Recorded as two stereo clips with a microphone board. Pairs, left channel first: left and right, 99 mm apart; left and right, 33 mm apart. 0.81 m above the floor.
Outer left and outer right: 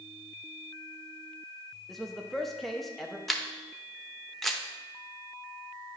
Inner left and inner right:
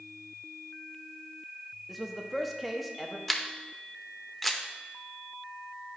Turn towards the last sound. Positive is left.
turn(degrees=0)  # may be behind; listen again after turning